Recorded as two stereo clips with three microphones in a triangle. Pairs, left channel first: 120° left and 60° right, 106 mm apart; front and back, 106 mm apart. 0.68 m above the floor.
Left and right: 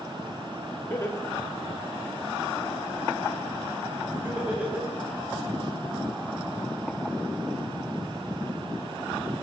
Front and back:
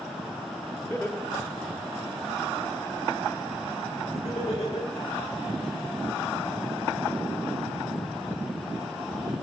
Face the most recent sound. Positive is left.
turn(degrees=15)